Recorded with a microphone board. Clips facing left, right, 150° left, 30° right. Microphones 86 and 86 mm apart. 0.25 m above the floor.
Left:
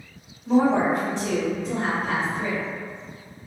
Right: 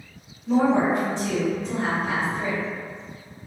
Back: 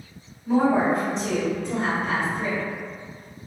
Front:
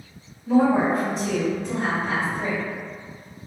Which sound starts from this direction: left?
A woman speaking, at 0.5 s.